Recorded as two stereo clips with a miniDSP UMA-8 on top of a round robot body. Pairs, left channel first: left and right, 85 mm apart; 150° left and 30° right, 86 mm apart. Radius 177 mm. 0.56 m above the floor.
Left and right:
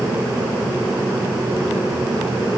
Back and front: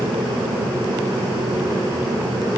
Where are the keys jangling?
I don't hear keys jangling.